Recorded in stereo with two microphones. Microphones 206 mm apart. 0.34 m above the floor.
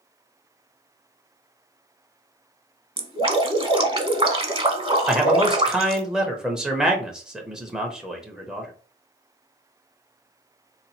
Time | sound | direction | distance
3.0 | dripping | 25° right (ahead or behind) | 0.8 m
5.1 | a man speaking | 5° right (ahead or behind) | 0.9 m